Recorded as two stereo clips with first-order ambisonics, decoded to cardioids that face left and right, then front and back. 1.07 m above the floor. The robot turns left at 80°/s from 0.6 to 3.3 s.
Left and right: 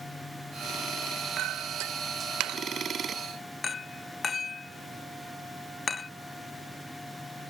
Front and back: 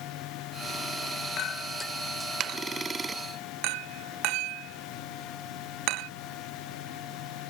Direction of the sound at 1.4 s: 40° right.